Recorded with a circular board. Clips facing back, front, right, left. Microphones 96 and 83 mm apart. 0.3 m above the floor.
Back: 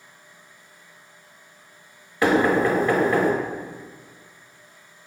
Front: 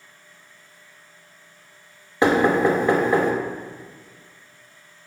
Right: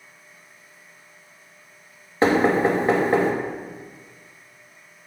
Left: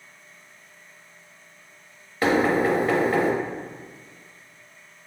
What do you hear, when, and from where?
2.2 s knocking: 50° right, 0.7 m